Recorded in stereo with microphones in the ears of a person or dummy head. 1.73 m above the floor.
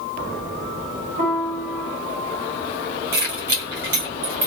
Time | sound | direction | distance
1.2 | a piano | 50° right (ahead or behind) | 1.7 m
3.1 | keys jangling | 25° right (ahead or behind) | 0.9 m